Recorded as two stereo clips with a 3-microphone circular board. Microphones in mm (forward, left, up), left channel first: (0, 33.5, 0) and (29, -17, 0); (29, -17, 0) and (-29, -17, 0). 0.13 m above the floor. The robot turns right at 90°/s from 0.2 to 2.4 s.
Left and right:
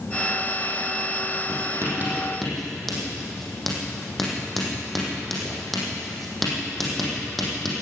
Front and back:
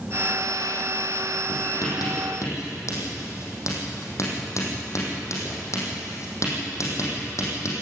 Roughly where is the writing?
Ahead right.